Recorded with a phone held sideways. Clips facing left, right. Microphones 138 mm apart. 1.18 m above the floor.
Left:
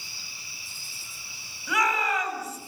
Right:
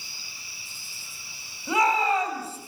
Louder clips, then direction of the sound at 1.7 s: Right 4 dB; 30° right (ahead or behind).